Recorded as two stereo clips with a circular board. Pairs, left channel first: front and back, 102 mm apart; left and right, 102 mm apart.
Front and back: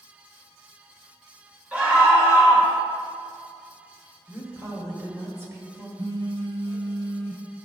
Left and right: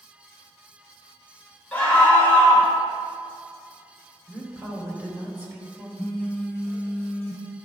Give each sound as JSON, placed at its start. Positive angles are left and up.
{"t": 1.7, "sound": "a scream", "azimuth_deg": 130, "distance_m": 1.5}
{"t": 4.3, "sound": "a woman speaking", "azimuth_deg": -145, "distance_m": 1.5}
{"t": 6.0, "sound": "a phone buzzing", "azimuth_deg": 150, "distance_m": 1.1}